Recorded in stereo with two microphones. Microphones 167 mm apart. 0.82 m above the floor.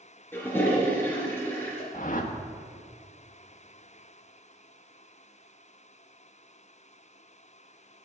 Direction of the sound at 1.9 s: 55° left (ahead or behind).